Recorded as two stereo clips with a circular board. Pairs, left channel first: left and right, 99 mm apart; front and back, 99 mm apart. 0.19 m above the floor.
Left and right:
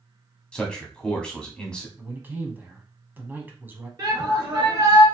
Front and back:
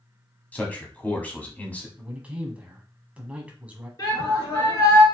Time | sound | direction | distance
0.5 | a man speaking | 30° left | 1.0 m
2.0 | a man speaking | 125° right | 1.1 m
4.0 | a shout | 45° right | 2.5 m